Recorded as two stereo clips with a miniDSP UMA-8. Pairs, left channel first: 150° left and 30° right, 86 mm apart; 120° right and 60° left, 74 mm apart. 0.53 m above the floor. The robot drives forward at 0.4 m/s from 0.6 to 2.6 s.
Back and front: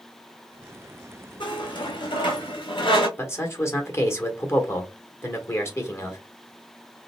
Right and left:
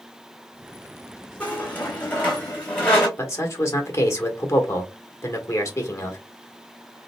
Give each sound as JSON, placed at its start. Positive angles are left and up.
{"t": 1.4, "sound": "a squeak", "azimuth_deg": 170, "distance_m": 1.5}
{"t": 3.2, "sound": "a man speaking", "azimuth_deg": -160, "distance_m": 1.2}